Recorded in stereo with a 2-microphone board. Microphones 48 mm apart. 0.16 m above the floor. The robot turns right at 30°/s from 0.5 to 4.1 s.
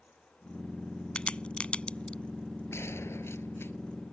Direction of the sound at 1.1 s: 25° left (ahead or behind).